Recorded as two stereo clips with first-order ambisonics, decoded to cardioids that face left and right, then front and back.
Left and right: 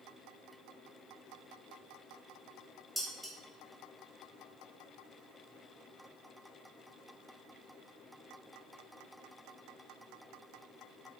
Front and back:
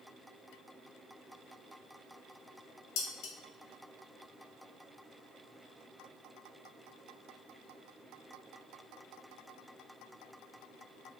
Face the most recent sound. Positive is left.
turn(degrees=-5)